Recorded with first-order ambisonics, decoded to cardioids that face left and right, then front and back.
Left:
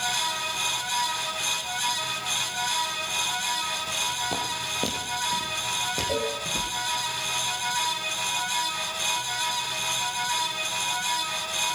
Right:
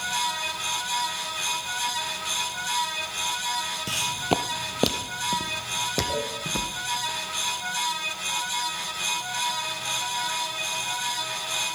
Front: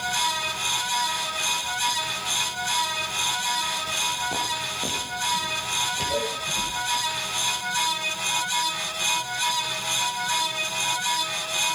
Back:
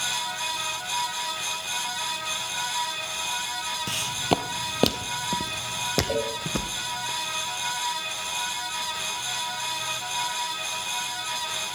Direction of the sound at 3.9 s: 135° right.